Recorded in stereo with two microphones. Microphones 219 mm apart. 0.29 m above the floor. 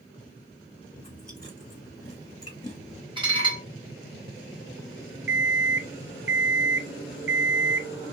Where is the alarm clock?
65° right (ahead or behind), 0.5 m.